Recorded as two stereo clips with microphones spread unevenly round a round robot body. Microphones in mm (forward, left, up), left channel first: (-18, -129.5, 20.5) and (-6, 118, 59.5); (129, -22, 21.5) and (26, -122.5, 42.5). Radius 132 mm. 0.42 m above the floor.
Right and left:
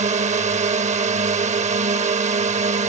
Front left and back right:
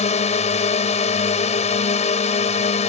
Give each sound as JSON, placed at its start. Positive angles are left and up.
{"t": 0.0, "sound": "a drone", "azimuth_deg": 20}